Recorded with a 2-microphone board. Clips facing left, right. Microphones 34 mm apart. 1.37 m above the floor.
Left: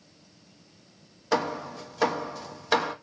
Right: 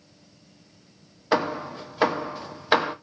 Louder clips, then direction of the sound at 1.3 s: Right 3 dB; 25° right (ahead or behind).